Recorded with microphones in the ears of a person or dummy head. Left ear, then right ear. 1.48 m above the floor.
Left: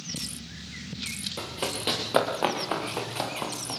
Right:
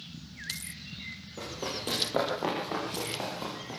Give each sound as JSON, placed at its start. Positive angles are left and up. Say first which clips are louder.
{"t": 1.4, "sound": "running footsteps", "louder": "left 1 dB", "side_deg": 65, "distance_m": 8.5}